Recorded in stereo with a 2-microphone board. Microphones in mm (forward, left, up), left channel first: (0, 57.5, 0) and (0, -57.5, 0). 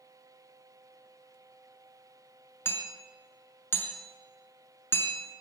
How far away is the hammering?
About 0.6 m.